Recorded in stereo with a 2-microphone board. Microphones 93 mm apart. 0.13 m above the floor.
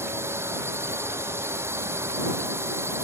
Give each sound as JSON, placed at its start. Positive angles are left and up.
{"t": 0.0, "sound": "a drone", "side_deg": -25}